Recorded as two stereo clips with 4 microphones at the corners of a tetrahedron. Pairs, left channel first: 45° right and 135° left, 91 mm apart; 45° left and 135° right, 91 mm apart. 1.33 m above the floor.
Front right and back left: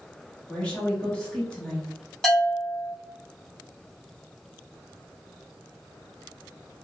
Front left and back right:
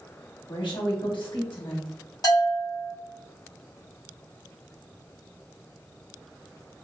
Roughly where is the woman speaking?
Ahead left.